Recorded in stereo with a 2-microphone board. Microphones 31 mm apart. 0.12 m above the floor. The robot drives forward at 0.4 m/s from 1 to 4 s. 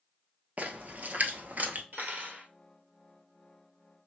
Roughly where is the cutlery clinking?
Right.